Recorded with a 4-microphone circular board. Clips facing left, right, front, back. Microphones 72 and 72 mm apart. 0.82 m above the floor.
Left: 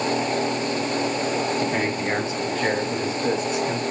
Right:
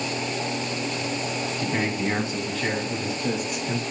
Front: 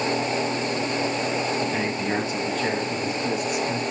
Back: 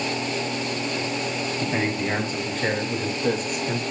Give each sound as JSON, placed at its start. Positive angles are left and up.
{"t": 1.6, "sound": "a man speaking", "azimuth_deg": 140, "distance_m": 5.5}